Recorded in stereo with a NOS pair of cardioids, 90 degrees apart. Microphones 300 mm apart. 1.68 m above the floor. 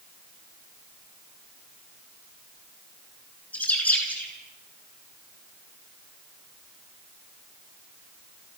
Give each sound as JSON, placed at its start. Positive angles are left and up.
{"t": 3.5, "sound": "a bird", "azimuth_deg": 5, "distance_m": 9.5}